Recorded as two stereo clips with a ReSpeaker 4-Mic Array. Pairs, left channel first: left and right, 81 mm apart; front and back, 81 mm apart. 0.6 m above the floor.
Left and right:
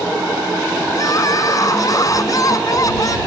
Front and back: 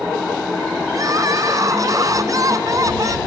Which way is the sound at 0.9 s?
135° left.